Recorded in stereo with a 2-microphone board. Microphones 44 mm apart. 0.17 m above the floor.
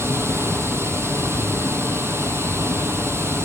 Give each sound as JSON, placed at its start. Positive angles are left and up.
{"t": 0.0, "sound": "running water", "side_deg": -70, "distance_m": 0.9}